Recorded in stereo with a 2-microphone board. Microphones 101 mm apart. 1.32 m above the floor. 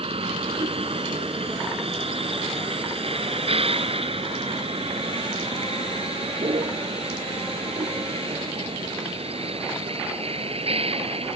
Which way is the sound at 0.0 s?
70° right (ahead or behind).